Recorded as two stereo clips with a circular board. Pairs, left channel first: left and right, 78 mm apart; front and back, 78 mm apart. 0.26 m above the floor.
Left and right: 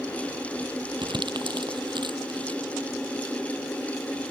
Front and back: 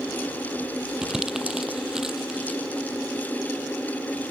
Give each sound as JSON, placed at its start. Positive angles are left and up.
{"t": 1.0, "sound": "crumpling", "azimuth_deg": -100}